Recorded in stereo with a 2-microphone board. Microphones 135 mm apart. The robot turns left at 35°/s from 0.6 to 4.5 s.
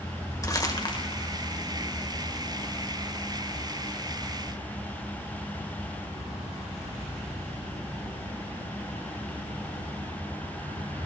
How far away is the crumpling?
About 2.0 m.